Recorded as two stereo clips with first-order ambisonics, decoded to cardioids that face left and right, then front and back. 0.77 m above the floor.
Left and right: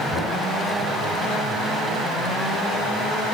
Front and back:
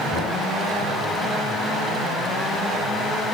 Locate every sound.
0.1 s knocking: 40° left, 7 m